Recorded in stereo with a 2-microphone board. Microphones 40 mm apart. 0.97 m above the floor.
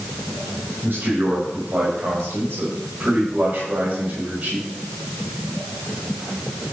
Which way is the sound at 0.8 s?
65° right (ahead or behind).